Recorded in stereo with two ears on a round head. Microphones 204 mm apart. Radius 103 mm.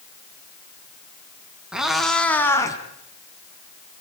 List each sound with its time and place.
1.7 s a cat meowing: 5° right (ahead or behind), 3.5 m; by 2.8 s 15° left (ahead or behind), 3 m